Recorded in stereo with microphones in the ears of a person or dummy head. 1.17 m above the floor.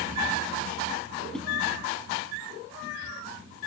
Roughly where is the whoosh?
Centre.